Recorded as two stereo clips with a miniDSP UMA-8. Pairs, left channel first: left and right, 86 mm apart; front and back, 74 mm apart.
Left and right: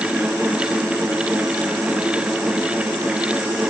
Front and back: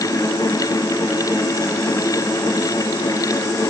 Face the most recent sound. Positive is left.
No sound to turn to.